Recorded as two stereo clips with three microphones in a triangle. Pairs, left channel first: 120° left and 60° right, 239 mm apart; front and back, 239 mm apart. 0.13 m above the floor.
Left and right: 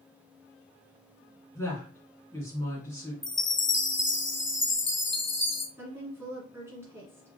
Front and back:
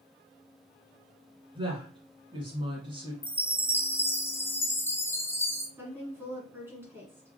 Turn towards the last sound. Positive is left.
turn(degrees=-120)